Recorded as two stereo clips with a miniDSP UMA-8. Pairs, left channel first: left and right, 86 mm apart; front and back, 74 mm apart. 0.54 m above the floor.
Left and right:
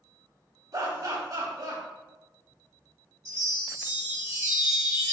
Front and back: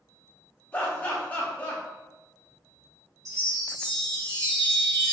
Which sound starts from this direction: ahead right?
Laughter, at 0.7 s.